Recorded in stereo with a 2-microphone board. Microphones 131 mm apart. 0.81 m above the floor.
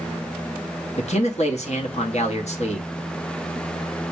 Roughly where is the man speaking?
Left.